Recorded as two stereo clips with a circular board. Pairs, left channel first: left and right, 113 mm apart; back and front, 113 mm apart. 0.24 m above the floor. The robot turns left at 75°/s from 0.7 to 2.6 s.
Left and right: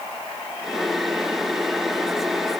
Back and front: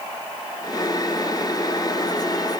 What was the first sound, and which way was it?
Only background noise.